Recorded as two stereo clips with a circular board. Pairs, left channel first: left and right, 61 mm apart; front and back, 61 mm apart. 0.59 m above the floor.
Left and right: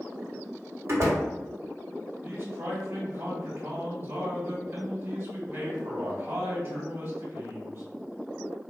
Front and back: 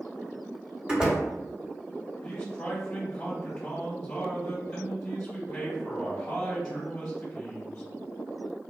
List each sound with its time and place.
0.9 s a door slam: 110° right, 0.9 m
2.2 s a man speaking: 75° right, 1.4 m